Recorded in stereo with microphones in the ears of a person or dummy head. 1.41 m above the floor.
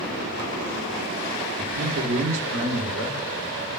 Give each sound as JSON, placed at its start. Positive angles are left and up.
{"t": 1.6, "sound": "a man speaking", "side_deg": -40, "distance_m": 0.9}